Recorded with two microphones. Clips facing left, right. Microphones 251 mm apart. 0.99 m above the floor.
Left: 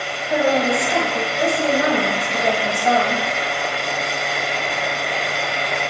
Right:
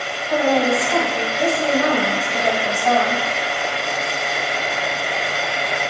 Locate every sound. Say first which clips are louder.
0.3 s a woman speaking: right 1 dB; 25° left (ahead or behind), 1.7 m